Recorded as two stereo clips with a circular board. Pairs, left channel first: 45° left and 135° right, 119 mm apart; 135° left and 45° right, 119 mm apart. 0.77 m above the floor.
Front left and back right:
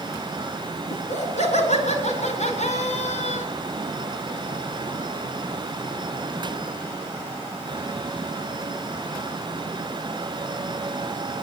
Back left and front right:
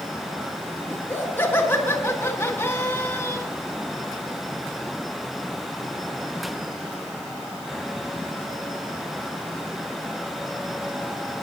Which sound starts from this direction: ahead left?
Laughter, at 0.9 s.